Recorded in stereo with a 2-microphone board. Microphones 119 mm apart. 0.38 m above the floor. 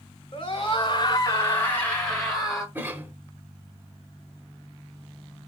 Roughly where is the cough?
Centre.